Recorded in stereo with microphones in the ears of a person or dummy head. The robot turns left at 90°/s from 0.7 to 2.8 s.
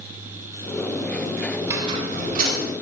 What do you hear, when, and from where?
1.6 s a squeak: straight ahead, 3 m; by 2.7 s 100° right, 3 m